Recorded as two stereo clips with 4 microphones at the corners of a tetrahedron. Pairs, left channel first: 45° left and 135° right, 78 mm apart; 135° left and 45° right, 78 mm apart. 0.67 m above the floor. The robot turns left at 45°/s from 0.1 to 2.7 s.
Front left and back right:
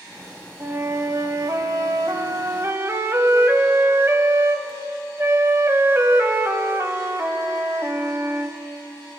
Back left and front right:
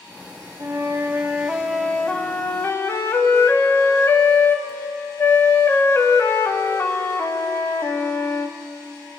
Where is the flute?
85° right, 0.7 m; by 8.6 s straight behind, 0.7 m.